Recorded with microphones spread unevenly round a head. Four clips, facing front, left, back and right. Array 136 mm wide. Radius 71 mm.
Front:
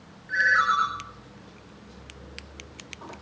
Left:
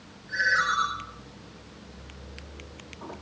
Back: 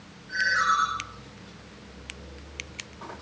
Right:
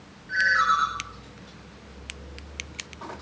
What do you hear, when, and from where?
0.3 s a ringtone: 25° left, 4 m